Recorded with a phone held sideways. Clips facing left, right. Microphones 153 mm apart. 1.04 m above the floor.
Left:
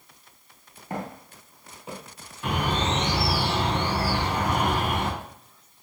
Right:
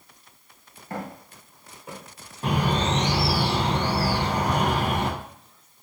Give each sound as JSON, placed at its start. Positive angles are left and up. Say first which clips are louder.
{"t": 0.9, "sound": "footsteps", "louder": "left 1 dB", "side_deg": 20, "distance_m": 1.0}
{"t": 2.4, "sound": "a bird", "louder": "right 2 dB", "side_deg": -35, "distance_m": 0.6}